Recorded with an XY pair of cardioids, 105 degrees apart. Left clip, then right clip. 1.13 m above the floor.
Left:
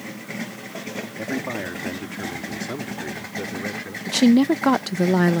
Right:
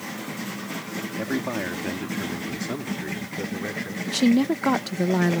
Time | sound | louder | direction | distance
1.2 | a man speaking | even | 5° right | ?
4.1 | a woman speaking | left 4 dB | 30° left | ?